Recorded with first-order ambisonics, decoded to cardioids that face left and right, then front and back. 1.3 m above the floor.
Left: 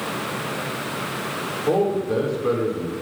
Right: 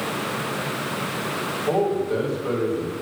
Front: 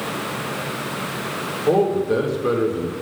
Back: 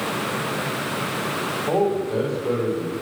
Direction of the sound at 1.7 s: 25° left.